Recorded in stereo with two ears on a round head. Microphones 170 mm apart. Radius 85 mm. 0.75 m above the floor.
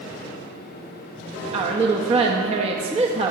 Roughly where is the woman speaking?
Right.